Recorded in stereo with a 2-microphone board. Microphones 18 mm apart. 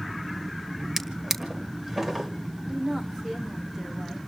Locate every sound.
1.0 s a drawer: 20° right (ahead or behind), 1.9 m
2.7 s a woman speaking: 25° right (ahead or behind), 3.5 m